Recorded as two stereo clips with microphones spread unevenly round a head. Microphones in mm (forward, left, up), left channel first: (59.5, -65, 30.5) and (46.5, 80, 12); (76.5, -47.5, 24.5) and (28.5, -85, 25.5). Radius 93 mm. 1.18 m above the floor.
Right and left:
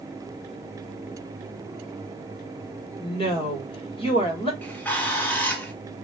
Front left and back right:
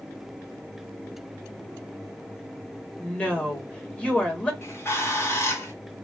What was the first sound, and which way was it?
A woman speaking, 35° right.